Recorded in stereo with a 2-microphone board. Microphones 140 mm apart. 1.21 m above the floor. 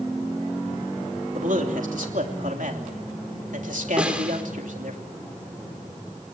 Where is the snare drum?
10° right (ahead or behind), 3 m.